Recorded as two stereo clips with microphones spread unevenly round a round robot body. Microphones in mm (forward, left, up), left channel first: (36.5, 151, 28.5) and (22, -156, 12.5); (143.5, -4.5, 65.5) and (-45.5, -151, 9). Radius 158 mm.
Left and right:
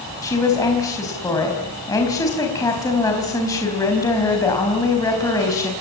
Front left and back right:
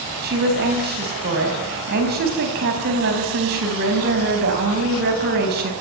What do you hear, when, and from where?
0.2 s a woman speaking: 170° left, 4 m